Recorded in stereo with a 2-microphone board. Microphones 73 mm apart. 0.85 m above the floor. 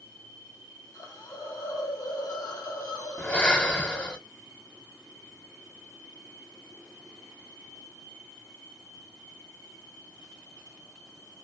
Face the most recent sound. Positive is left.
turn(degrees=20)  # may be behind; listen again after turning